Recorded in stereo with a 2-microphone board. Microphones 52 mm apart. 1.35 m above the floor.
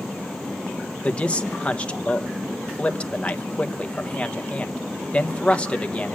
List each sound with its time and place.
1.0 s a man speaking: 25° left (ahead or behind), 1.1 m